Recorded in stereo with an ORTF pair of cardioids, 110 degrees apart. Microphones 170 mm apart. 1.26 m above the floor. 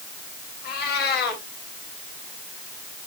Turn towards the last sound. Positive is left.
turn(degrees=65)